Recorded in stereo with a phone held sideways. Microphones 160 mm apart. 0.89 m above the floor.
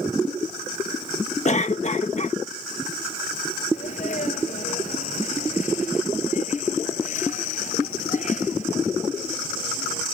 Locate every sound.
1.4 s a cough: 45° left (ahead or behind)
3.7 s a sneeze: 50° left (ahead or behind)